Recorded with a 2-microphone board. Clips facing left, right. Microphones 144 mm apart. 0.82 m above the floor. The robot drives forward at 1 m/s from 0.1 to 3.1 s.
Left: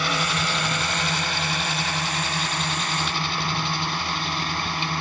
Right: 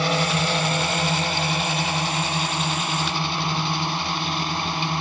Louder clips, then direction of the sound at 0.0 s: Right 4 dB; 30° right (ahead or behind).